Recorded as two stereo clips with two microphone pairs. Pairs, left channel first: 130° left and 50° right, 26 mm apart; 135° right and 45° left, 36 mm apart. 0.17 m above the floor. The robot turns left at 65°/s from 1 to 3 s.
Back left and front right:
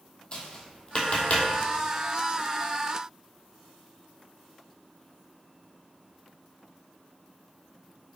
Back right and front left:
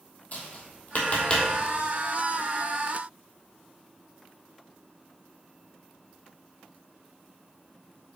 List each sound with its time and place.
0.3 s tapping: straight behind, 1.1 m; by 1.5 s 150° left, 1.1 m